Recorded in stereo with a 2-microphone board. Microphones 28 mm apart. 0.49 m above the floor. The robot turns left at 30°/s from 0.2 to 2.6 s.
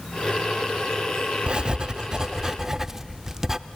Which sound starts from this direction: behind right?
Writing, at 1.5 s.